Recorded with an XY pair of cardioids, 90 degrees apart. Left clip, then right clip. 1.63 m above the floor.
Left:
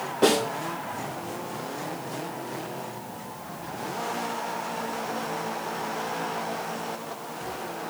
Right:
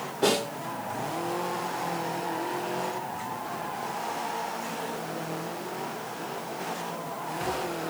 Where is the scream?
No scream in this recording.